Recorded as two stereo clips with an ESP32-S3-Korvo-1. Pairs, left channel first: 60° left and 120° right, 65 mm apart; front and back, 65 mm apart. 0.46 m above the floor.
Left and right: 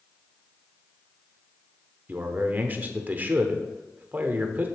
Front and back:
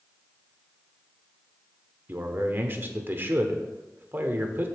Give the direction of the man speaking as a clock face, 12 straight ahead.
5 o'clock.